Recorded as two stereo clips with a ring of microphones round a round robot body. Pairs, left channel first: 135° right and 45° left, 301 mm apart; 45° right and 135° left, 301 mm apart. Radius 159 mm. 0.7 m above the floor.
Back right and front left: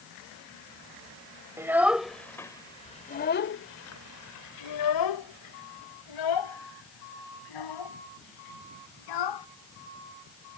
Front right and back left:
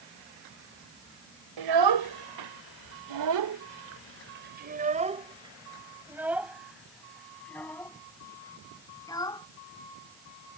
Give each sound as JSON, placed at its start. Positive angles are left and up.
{"t": 1.6, "sound": "a child speaking", "azimuth_deg": 125}